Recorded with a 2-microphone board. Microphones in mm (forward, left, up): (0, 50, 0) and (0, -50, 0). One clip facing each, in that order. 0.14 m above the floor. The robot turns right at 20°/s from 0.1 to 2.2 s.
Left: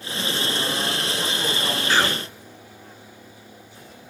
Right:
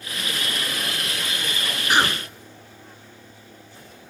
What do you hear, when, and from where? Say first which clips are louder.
1.9 s a cough: right 2 dB; 15° right (ahead or behind), 1.8 m; by 2.3 s 20° right (ahead or behind), 1.8 m